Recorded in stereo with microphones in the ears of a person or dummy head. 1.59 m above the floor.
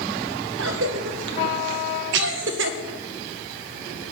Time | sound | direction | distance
0.6 | a cough | 80° right | 1.9 m